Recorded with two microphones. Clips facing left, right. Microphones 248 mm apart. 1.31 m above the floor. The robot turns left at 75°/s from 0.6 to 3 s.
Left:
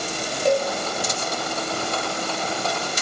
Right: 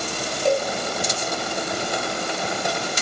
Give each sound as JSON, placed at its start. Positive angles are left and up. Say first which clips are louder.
{"t": 0.5, "sound": "a cowbell", "louder": "left 1 dB", "side_deg": 0, "distance_m": 0.6}